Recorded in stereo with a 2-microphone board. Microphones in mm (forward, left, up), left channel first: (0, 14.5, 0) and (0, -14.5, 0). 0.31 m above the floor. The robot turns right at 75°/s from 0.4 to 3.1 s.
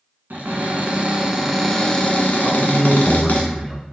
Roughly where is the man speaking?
Centre.